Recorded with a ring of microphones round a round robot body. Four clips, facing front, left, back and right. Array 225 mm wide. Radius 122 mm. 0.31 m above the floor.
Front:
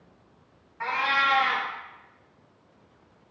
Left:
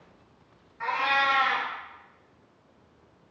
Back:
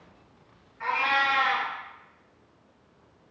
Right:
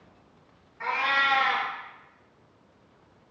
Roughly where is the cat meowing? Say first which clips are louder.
Left 1 dB, even; ahead.